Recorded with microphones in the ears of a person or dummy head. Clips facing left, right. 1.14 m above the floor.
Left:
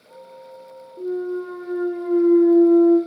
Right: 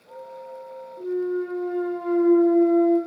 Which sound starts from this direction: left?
A clunk, at 1.0 s.